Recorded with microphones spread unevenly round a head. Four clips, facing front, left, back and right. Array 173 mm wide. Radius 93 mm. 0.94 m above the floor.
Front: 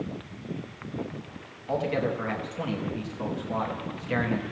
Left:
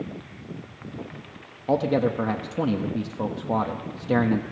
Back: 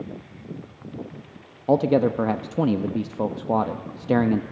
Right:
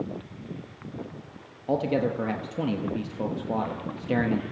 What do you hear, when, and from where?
1.7 s a man speaking: 170° left, 0.9 m